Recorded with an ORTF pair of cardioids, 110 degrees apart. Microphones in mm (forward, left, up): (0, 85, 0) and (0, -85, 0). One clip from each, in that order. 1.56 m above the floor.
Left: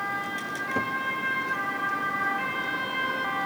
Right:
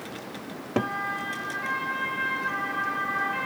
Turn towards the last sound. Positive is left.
turn(degrees=-35)